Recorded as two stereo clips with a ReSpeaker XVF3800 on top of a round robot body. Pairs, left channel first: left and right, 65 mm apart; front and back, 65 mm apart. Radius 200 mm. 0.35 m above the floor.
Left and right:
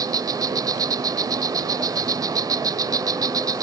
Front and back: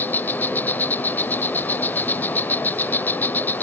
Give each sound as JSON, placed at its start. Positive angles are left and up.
{"t": 0.0, "sound": "an insect", "azimuth_deg": -65}